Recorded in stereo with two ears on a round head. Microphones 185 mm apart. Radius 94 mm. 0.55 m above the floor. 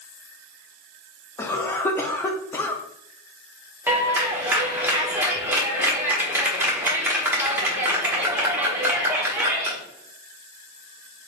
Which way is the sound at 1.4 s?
10° left (ahead or behind).